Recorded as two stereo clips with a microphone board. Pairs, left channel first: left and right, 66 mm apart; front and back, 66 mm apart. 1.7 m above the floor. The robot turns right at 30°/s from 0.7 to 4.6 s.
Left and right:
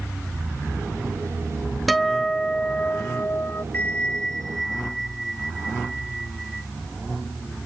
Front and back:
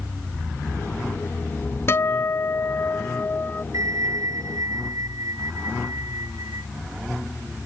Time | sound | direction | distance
1.9 | a guitar | straight ahead | ?
3.7 | a bell | 155° left | ?